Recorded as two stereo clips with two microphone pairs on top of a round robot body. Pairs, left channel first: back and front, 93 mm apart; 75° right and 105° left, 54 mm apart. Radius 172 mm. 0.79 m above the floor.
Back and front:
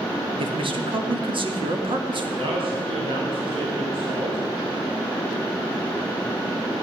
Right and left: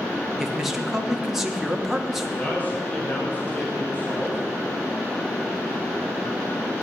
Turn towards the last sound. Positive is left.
turn(degrees=-20)